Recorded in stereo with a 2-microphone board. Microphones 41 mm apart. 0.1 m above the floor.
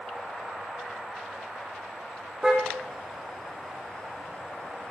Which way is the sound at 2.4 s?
10° right (ahead or behind).